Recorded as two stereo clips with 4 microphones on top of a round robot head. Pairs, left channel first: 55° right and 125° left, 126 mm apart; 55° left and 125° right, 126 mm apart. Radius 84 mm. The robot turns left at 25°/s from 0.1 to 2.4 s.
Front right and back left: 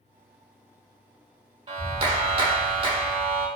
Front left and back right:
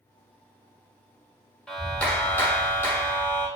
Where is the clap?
145° left, 0.8 m; by 3.5 s 125° left, 0.8 m.